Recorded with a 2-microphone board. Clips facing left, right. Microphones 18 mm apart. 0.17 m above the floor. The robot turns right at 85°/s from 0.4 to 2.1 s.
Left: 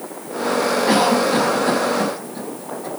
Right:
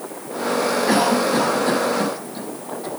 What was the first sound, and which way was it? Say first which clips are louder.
A cough: left 2 dB; 70° left (ahead or behind).